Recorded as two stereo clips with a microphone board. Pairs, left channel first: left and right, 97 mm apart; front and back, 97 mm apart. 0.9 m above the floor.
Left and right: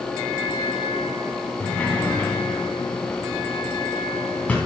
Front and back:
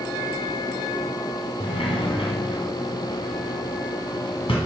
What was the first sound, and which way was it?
A sliding door, 15° left.